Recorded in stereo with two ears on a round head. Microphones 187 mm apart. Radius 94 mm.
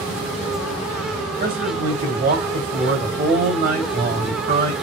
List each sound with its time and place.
1.4 s a man speaking: 45° right (ahead or behind), 2.5 m